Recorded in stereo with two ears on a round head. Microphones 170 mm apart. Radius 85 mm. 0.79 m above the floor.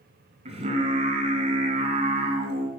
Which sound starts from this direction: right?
Singing, at 0.5 s.